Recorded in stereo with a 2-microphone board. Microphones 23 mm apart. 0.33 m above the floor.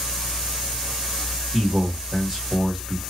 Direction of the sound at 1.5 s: Centre (ahead or behind).